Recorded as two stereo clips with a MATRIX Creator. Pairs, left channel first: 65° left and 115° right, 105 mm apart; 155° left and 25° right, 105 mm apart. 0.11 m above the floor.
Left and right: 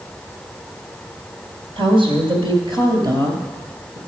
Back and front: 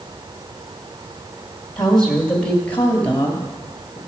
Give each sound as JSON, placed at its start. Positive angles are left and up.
{"t": 1.8, "sound": "a woman speaking", "azimuth_deg": -115, "distance_m": 2.5}